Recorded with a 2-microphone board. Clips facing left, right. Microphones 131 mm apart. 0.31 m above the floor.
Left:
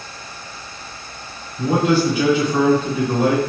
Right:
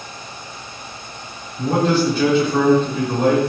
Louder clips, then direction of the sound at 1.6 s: Left 1 dB; 10° left (ahead or behind).